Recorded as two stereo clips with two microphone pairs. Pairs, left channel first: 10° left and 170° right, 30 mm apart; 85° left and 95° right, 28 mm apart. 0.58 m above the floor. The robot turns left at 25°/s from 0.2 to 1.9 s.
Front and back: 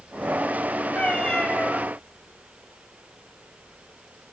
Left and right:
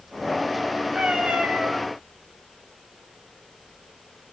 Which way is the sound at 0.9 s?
40° right.